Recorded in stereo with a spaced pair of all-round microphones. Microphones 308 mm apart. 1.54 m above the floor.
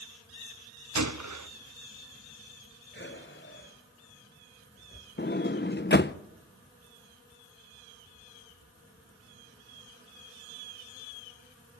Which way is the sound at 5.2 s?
40° left (ahead or behind).